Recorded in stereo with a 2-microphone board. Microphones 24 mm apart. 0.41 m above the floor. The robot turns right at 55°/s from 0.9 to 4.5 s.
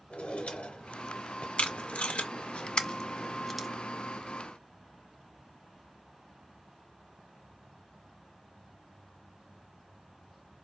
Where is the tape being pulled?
60° left (ahead or behind), 0.5 m; by 3.7 s centre (ahead or behind), 0.5 m.